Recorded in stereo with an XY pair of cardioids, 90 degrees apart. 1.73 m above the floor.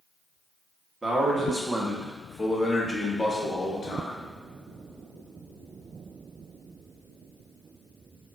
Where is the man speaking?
30° right, 1.4 m; by 4.3 s 50° left, 1.3 m.